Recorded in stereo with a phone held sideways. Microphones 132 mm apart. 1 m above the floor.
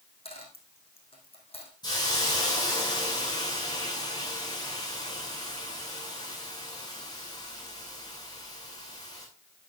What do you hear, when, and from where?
0.2 s a dropped coin: 50° left (ahead or behind), 4.5 m
1.8 s a hiss: 35° left (ahead or behind), 8 m